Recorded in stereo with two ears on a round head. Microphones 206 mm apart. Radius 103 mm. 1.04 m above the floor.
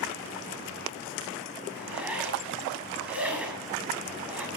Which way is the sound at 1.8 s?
5° right (ahead or behind).